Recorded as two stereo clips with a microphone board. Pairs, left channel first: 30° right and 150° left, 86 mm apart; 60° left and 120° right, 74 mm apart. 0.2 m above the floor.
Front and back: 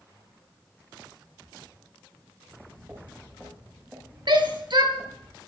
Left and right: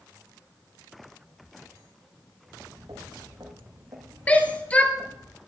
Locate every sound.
2.4 s footsteps: 150° right, 8 m; by 5.3 s 135° right, 10 m
4.3 s a shout: 130° left, 3 m